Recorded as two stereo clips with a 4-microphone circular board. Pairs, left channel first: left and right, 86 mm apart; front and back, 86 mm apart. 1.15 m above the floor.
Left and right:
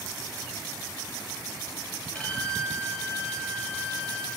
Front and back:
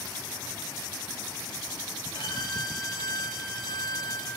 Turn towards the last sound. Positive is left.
turn(degrees=15)